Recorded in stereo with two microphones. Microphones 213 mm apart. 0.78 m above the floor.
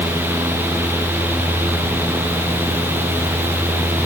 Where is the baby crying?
No baby crying in this recording.